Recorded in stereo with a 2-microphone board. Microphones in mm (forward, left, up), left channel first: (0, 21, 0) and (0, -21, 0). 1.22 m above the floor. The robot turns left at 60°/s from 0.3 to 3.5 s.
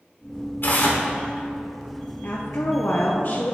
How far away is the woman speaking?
About 0.7 m.